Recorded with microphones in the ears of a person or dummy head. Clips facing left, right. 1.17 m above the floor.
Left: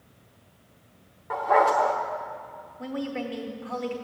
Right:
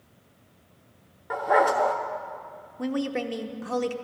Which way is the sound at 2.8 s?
50° right (ahead or behind).